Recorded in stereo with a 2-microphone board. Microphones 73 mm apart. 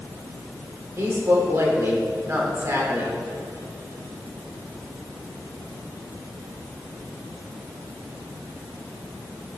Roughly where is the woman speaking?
Right.